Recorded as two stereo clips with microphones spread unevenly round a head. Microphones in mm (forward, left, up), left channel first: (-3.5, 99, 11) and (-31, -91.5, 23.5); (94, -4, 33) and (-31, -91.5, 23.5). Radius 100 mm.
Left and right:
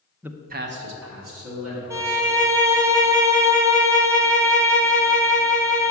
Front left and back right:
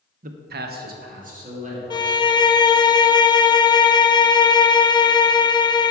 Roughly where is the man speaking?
Behind.